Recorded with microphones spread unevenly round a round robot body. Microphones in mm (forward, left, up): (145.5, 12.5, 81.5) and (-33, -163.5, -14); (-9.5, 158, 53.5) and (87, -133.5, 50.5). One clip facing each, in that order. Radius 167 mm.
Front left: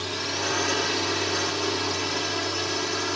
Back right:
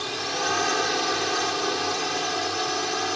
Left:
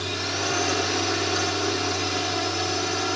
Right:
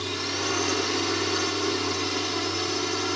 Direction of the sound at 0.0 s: Straight ahead.